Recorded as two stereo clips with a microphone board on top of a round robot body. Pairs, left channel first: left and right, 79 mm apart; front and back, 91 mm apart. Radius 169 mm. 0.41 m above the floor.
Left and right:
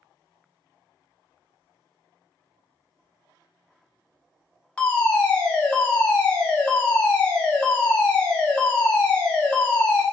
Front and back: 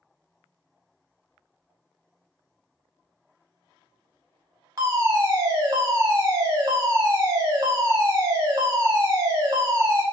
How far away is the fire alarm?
About 2 m.